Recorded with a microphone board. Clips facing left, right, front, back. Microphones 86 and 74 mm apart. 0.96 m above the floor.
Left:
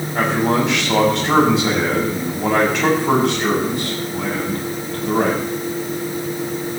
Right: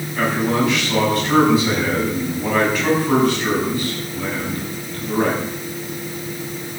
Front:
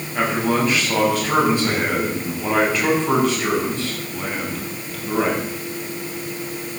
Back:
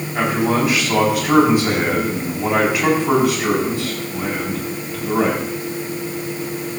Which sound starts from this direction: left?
A man speaking, at 0.1 s.